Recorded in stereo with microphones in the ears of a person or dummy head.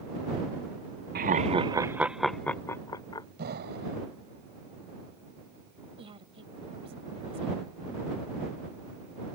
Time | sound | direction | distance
1.1 | laughter | 40° right (ahead or behind) | ?
3.4 | an explosion | 55° right (ahead or behind) | ?
6.0 | a woman speaking | 25° right (ahead or behind) | ?